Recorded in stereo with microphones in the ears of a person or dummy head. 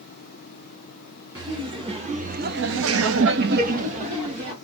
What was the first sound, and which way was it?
Laughter, 25° right (ahead or behind).